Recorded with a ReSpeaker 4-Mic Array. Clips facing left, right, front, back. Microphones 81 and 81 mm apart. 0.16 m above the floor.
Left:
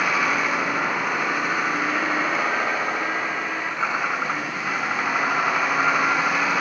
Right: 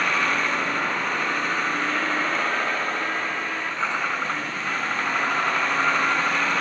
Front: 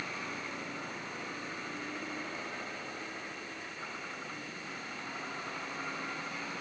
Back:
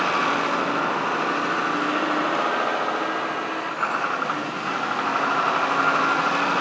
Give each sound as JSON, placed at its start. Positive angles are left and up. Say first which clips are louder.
{"t": 0.0, "sound": "a vehicle", "louder": "left 1 dB, back 19 dB", "azimuth_deg": 170}